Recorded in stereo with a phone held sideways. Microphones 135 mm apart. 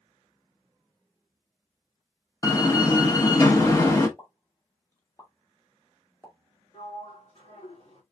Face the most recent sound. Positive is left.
turn(degrees=60)  # may be behind; listen again after turning